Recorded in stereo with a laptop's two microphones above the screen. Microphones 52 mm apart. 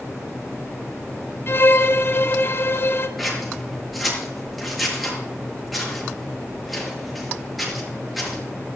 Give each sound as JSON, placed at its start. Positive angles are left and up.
{"t": 1.5, "sound": "a violin", "side_deg": 45, "distance_m": 0.7}
{"t": 3.2, "sound": "scissors", "side_deg": 0, "distance_m": 6.5}